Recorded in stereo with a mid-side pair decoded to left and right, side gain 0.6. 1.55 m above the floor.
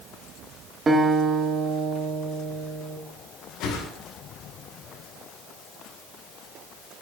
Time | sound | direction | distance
0.9 | a guitar | 25° right | 1.9 m
3.6 | a whoosh | 70° left | 2 m